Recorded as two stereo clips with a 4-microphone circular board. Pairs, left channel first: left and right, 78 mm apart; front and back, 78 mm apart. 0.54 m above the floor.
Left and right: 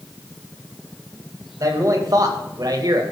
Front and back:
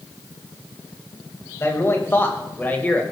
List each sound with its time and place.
1.6 s a man speaking: 55° right, 3 m; by 3.0 s 70° right, 2.5 m